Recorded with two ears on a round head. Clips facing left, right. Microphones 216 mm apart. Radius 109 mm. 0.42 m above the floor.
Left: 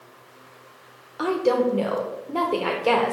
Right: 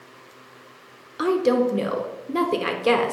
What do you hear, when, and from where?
1.2 s a woman speaking: 25° right (ahead or behind), 0.8 m